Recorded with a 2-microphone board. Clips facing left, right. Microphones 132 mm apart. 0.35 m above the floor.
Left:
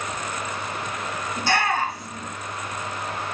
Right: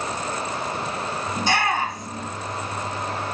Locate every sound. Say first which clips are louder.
1.4 s a shout: even; 20° right (ahead or behind), 3 m